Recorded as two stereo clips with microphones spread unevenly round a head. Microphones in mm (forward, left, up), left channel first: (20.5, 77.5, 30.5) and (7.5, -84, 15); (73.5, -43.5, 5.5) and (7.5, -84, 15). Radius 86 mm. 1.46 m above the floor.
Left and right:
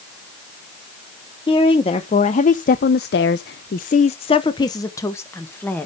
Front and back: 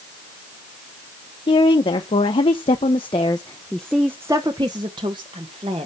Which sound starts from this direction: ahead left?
A woman speaking, at 1.5 s.